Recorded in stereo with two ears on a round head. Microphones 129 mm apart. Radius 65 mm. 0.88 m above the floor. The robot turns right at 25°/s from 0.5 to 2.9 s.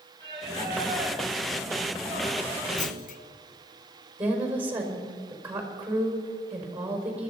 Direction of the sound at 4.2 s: 15° right (ahead or behind).